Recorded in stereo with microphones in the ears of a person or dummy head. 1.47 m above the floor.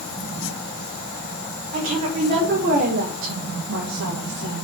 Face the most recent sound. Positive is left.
turn(degrees=-70)  # may be behind; listen again after turning